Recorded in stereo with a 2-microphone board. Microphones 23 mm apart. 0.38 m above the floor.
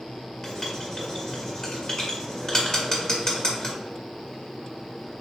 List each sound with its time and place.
0.4 s writing: 30° left (ahead or behind), 1.5 m